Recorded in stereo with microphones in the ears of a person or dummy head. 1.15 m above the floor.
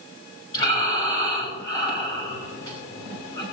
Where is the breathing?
20° left (ahead or behind), 6.5 m.